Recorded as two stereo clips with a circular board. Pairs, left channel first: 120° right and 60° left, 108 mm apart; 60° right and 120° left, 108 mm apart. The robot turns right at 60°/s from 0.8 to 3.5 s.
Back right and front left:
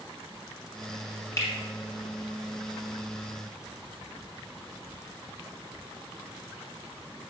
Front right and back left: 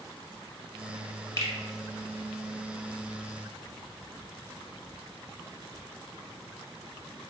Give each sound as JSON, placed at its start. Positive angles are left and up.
{"t": 1.4, "sound": "a finger snap", "azimuth_deg": -90, "distance_m": 1.1}